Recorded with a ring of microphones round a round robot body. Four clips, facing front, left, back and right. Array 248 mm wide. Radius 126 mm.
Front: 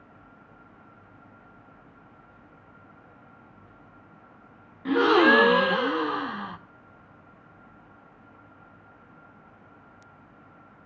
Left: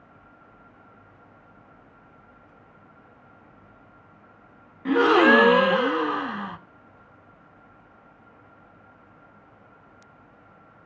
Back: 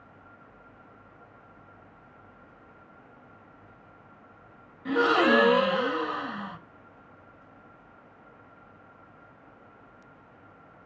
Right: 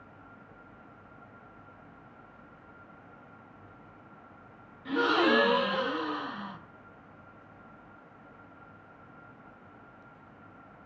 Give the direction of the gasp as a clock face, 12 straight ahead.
10 o'clock.